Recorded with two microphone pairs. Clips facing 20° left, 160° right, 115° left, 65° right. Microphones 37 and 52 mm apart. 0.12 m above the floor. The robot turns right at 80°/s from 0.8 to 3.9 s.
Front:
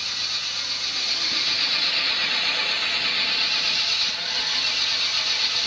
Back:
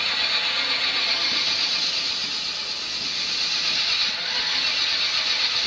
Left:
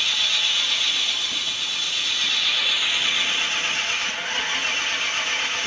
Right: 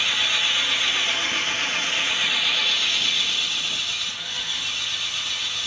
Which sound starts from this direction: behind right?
An engine running, at 0.0 s.